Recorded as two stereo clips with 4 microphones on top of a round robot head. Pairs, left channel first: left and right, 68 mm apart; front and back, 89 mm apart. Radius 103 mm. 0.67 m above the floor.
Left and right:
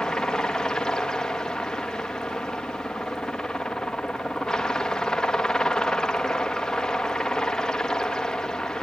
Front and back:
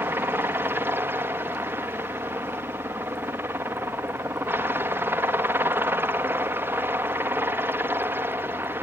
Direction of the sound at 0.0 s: 155° left.